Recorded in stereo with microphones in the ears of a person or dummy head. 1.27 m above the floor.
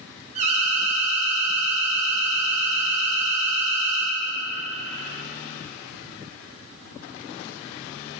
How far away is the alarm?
About 1.5 m.